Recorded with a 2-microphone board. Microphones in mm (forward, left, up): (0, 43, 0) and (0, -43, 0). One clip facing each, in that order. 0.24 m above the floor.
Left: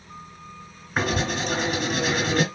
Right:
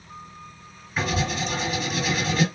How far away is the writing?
About 3 m.